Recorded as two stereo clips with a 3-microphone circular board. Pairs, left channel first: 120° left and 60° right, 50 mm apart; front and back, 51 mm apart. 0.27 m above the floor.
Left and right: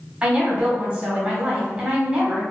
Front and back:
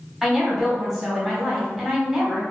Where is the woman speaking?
100° right, 1.2 m.